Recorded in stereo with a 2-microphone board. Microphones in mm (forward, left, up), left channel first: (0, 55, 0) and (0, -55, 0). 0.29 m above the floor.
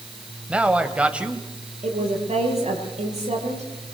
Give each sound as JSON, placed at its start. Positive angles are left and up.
{"t": 0.5, "sound": "a man speaking", "side_deg": -10, "distance_m": 1.9}
{"t": 1.8, "sound": "a woman speaking", "side_deg": -80, "distance_m": 9.0}